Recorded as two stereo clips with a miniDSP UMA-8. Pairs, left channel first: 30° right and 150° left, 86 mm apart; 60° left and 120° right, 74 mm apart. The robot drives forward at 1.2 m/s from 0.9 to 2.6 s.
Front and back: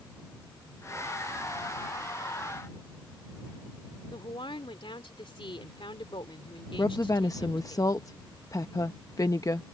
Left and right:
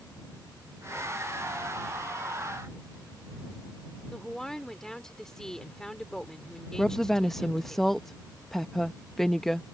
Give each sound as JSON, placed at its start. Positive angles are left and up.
{"t": 4.1, "sound": "a woman speaking", "azimuth_deg": -25}
{"t": 6.8, "sound": "a woman speaking", "azimuth_deg": -25}